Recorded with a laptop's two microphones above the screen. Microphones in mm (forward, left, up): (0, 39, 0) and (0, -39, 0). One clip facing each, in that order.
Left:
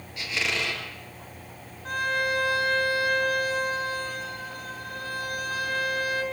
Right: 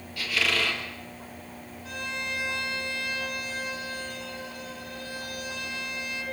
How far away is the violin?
About 8 m.